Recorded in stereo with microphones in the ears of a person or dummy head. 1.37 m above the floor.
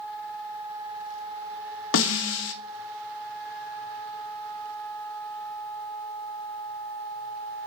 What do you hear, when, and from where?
1.9 s a snare drum: 75° left (ahead or behind), 0.9 m